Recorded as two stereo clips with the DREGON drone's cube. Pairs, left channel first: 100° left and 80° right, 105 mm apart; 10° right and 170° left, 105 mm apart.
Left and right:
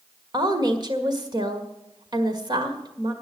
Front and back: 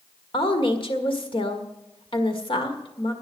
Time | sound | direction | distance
0.3 | a woman speaking | 40° right | 1.8 m